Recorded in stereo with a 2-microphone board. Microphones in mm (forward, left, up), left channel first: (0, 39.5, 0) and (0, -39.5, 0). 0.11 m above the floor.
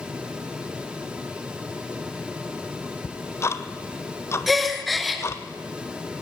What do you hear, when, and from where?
3.0 s ticking: 35° left (ahead or behind), 0.9 m
4.5 s a gasp: centre (ahead or behind), 1.6 m